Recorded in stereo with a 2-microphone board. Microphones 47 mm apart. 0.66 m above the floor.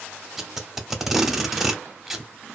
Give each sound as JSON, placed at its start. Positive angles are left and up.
{"t": 0.4, "sound": "tape being pulled", "side_deg": -5, "distance_m": 0.6}